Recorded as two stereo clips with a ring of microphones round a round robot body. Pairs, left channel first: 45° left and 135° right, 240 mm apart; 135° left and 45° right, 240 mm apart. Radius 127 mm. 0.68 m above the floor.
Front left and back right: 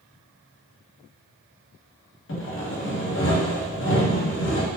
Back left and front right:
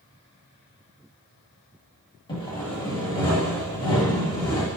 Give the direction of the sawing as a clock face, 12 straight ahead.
10 o'clock.